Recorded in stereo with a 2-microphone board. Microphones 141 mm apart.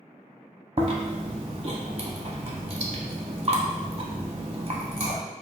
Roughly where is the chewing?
Right.